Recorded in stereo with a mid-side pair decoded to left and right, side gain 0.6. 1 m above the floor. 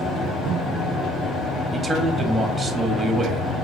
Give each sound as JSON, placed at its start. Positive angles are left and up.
{"t": 0.0, "sound": "a fan", "azimuth_deg": 35, "distance_m": 1.6}
{"t": 1.7, "sound": "a man speaking", "azimuth_deg": -15, "distance_m": 1.2}